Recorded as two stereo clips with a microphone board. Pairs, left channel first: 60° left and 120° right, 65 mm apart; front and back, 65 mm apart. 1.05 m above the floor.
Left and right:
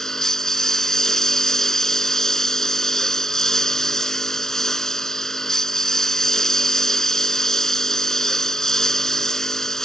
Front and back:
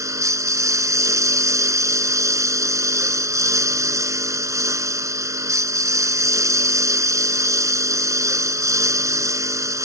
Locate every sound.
0.0 s a lawn mower: 145° left